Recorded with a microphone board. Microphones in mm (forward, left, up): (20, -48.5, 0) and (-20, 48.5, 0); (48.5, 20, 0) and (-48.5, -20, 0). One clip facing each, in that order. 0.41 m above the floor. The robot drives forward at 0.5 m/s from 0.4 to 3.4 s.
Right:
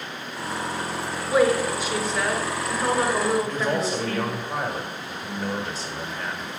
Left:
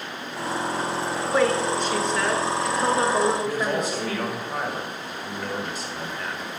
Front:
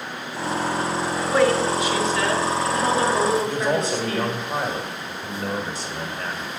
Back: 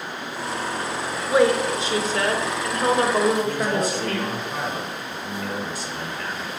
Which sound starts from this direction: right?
A woman speaking, at 1.3 s.